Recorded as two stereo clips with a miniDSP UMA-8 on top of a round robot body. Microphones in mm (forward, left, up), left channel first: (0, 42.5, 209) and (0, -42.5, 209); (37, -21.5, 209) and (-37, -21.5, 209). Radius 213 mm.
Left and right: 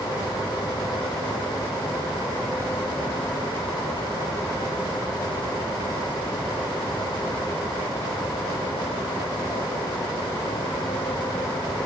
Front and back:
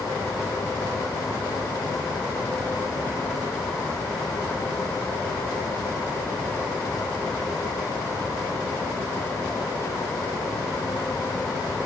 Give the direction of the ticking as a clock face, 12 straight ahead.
I don't hear ticking.